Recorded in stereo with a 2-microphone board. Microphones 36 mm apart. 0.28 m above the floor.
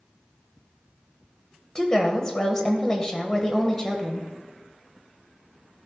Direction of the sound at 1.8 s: 20° left (ahead or behind).